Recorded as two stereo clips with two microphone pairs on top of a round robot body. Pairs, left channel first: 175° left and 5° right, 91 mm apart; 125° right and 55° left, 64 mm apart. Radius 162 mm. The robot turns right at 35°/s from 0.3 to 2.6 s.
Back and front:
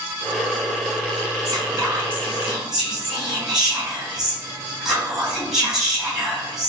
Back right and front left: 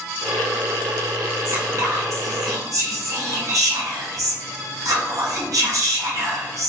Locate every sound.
1.4 s whispering: 40° left, 1.8 m; by 6.7 s 80° left, 1.8 m